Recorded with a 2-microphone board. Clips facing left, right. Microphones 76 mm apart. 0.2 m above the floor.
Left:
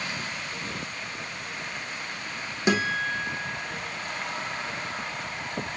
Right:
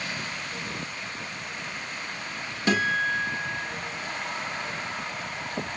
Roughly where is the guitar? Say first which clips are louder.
Right 1 dB; centre.